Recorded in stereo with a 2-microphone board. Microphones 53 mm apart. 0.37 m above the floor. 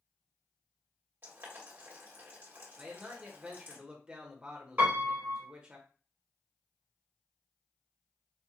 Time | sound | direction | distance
1.2 | boiling | 45° right (ahead or behind) | 1.5 m
2.8 | a man speaking | 20° right (ahead or behind) | 0.9 m
4.8 | a piano | 40° right (ahead or behind) | 1.4 m